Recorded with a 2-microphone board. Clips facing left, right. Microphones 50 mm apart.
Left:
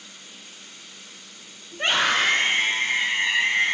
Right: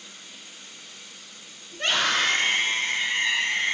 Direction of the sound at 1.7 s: 25° left (ahead or behind).